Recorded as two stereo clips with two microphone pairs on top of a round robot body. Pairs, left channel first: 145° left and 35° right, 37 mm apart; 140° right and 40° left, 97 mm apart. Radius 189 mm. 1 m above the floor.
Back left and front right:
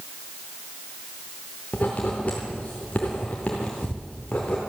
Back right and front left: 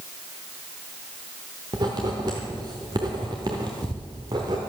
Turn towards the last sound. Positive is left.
turn(degrees=90)